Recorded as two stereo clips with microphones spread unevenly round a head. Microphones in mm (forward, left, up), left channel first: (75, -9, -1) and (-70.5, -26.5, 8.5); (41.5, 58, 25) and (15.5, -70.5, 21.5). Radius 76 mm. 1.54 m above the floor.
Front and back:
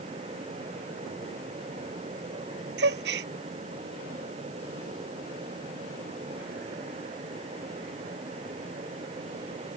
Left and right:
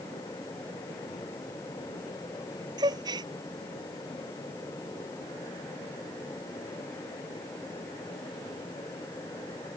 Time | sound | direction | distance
2.8 | a gasp | 165° right | ?